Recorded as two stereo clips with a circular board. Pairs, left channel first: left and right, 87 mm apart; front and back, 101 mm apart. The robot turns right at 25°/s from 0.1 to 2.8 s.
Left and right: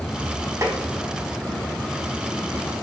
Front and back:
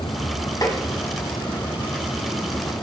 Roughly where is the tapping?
Ahead right.